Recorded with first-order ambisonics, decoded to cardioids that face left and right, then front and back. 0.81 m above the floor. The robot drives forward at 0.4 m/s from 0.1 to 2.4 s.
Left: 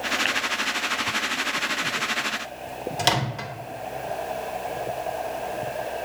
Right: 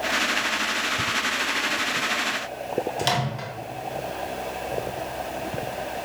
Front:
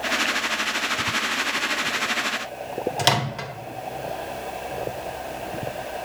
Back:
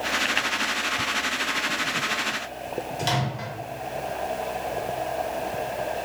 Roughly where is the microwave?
Ahead left.